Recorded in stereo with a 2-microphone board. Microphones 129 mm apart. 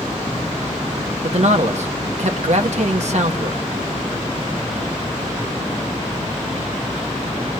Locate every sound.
1.2 s a man speaking: 60° right (ahead or behind), 1.4 m